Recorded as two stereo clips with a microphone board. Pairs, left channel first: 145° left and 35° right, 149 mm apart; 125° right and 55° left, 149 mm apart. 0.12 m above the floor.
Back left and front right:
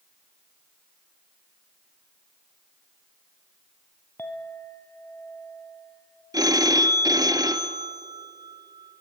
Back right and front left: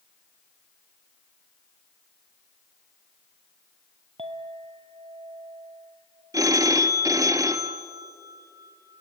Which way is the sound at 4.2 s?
80° left.